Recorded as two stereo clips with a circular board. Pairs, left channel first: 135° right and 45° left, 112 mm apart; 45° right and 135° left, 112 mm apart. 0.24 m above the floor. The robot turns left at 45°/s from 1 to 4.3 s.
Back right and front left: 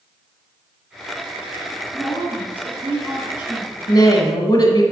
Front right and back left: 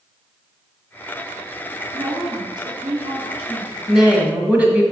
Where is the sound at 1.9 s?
175° right, 2.5 m; by 3.7 s 105° left, 2.5 m.